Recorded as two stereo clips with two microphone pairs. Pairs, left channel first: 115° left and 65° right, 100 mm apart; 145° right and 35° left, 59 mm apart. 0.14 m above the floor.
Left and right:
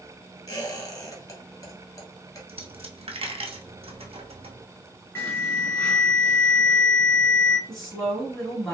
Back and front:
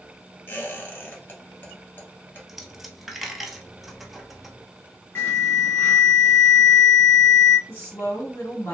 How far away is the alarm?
About 1.4 m.